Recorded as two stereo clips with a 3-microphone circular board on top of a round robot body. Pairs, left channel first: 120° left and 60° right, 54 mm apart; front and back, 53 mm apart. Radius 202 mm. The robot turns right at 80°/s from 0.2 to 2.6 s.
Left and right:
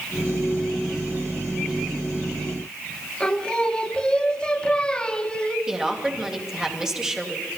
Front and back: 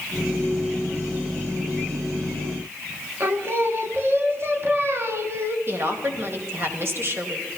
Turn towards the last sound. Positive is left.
turn(degrees=-140)